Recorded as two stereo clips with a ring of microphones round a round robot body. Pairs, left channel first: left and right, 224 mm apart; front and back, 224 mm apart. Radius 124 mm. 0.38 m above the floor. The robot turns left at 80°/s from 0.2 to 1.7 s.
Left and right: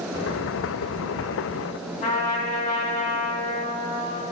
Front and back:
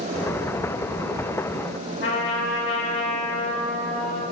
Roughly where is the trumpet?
Ahead left.